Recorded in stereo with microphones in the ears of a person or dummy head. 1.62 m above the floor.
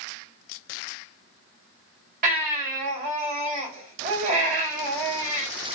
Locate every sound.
2.2 s a baby crying: 45° right (ahead or behind), 1.6 m